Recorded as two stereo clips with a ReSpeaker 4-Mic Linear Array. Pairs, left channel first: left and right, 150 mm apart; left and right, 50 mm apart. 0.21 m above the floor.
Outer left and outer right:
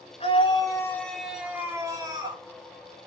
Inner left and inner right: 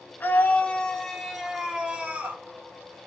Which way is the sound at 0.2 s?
40° left (ahead or behind).